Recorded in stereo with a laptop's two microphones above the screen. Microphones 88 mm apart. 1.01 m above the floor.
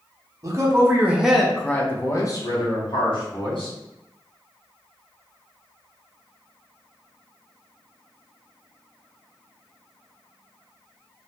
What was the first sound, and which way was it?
A man speaking, 40° right (ahead or behind).